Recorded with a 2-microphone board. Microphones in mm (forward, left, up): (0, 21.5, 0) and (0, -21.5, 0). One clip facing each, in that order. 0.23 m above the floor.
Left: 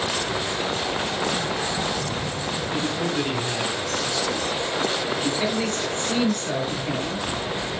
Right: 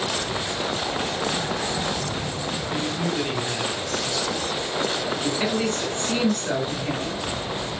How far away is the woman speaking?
About 3 m.